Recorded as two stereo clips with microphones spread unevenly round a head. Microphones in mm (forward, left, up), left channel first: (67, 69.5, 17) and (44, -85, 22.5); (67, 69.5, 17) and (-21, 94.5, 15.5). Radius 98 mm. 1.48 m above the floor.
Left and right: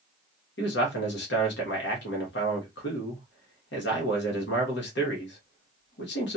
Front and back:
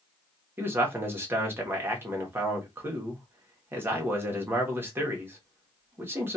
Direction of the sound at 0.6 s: 100° left.